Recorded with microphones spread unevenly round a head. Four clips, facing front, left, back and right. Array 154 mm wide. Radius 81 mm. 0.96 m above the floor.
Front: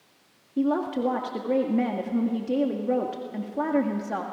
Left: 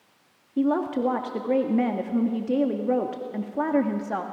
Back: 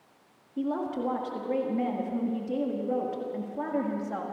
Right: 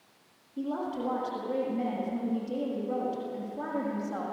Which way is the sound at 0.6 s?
55° left.